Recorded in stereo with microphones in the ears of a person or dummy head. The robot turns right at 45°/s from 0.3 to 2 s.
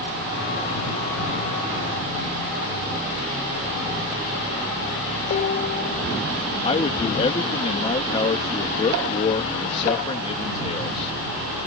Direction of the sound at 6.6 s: 35° left (ahead or behind).